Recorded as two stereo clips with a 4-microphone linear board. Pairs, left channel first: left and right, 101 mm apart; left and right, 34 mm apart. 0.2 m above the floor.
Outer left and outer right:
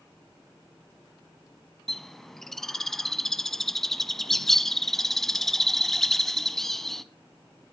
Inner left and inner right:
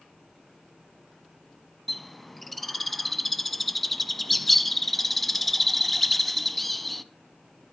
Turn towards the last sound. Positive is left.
turn(degrees=0)  # may be behind; listen again after turning